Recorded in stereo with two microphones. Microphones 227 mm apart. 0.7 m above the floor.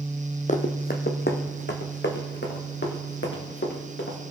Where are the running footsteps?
35° left (ahead or behind), 1.1 m; by 4.2 s 55° left (ahead or behind), 4 m.